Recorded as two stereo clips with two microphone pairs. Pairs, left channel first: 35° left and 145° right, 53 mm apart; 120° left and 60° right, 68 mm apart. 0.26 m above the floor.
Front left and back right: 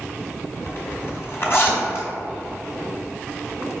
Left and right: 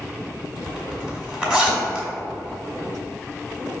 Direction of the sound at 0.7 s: 10° left.